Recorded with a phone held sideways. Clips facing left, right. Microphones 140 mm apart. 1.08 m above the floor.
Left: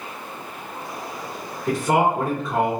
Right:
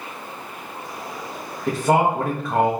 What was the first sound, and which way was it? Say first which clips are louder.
A man speaking: right 1 dB; 75° right (ahead or behind).